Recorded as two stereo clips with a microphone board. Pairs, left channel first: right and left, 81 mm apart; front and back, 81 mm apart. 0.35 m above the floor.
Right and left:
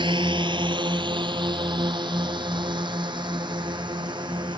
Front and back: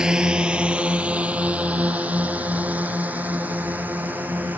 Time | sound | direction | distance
0.0 | a drone | 100° left | ?